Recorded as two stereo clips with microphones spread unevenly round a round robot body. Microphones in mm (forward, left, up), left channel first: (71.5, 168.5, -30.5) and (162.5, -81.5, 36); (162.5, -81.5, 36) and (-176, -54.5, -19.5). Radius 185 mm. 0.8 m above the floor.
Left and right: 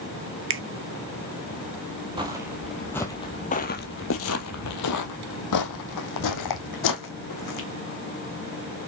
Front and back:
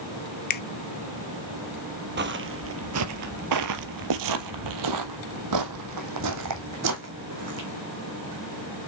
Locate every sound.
0.5 s a finger snap: 60° right, 0.9 m
2.2 s footsteps: 125° right, 1.1 m; by 7.7 s 120° left, 2.5 m